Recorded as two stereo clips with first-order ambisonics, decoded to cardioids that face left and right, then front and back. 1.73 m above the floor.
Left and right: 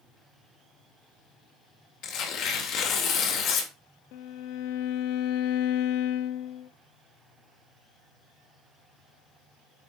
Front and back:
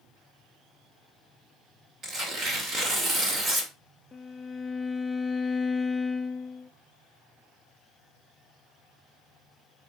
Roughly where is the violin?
Left.